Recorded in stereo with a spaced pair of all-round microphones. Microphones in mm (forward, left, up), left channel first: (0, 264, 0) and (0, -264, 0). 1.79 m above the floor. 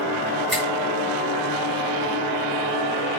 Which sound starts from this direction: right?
A finger snap, at 0.5 s.